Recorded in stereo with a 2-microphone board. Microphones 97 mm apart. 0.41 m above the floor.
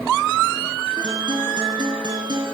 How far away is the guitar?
About 4 m.